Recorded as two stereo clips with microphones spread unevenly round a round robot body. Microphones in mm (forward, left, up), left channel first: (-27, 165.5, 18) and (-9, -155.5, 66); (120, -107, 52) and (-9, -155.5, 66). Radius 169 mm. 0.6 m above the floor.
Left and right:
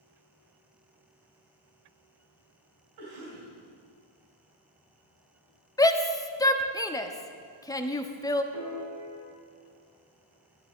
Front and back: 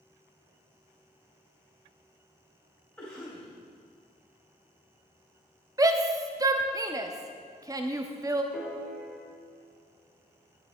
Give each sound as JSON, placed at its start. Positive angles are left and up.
{"t": 3.0, "sound": "a cough", "azimuth_deg": -60, "distance_m": 3.0}
{"t": 5.8, "sound": "a shout", "azimuth_deg": 145, "distance_m": 0.8}
{"t": 8.5, "sound": "a piano", "azimuth_deg": -65, "distance_m": 3.5}